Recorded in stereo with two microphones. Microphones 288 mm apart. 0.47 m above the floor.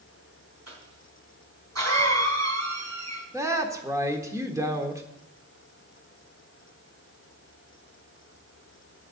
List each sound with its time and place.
0.7 s a cough: 65° right (ahead or behind), 3.5 m
3.3 s a woman speaking: 10° right (ahead or behind), 1.4 m